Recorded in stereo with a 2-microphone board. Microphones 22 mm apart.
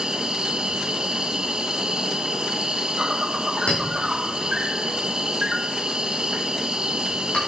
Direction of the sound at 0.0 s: 45° right (ahead or behind).